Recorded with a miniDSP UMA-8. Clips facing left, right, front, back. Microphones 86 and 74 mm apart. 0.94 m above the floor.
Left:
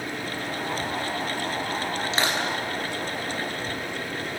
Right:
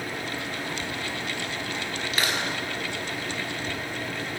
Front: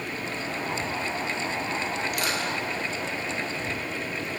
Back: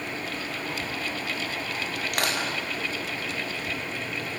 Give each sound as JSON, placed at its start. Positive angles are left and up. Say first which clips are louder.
{"t": 2.1, "sound": "crushing", "louder": "left 1 dB, even", "azimuth_deg": 155, "distance_m": 6.0}